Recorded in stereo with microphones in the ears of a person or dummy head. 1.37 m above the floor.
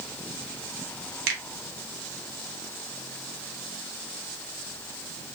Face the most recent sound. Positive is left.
turn(degrees=-65)  # may be behind; listen again after turning